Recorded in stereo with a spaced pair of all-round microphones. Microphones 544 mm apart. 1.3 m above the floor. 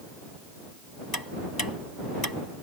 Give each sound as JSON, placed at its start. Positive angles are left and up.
{"t": 1.1, "sound": "ticking", "side_deg": 40}